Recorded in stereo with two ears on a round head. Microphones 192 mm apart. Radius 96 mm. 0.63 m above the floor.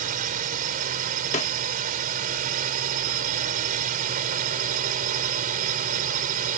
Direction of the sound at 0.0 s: 40° right (ahead or behind).